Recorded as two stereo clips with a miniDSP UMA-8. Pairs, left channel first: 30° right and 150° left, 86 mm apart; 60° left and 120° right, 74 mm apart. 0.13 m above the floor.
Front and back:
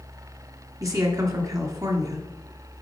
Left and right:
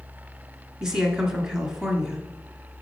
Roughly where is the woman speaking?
Behind.